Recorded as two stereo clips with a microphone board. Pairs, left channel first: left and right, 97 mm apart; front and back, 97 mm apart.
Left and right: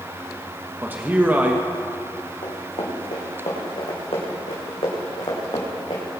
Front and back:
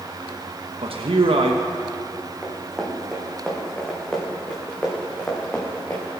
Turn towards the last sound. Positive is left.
turn(degrees=70)